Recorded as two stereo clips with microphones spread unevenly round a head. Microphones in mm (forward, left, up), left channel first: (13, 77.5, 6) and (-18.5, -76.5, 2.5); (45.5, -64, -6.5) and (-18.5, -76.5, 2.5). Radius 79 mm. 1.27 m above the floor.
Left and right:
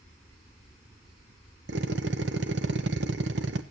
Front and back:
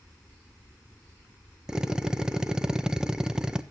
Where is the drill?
90° right, 1.2 m.